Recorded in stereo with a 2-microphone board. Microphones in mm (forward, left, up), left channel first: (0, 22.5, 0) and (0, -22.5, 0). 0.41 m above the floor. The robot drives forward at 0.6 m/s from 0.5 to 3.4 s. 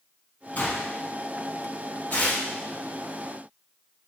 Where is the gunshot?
40° left (ahead or behind), 1.2 m; by 0.9 s 45° left (ahead or behind), 1.0 m.